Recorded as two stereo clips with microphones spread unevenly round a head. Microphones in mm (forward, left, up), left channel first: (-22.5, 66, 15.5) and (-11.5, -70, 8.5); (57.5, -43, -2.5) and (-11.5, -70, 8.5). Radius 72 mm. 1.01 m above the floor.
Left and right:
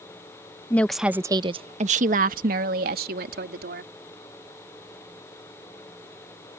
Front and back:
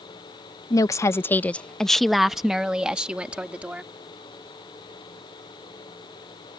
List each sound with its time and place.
0.7 s a woman speaking: 20° left; by 3.9 s 85° right